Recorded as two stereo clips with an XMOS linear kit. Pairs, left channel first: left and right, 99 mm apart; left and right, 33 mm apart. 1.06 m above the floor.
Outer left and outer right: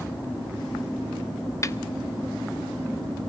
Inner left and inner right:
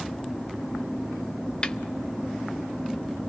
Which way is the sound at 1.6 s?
35° left (ahead or behind).